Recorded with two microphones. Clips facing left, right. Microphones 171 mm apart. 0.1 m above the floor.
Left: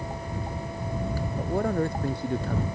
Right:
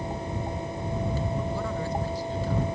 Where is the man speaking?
50° left (ahead or behind); by 2.6 s 60° left (ahead or behind).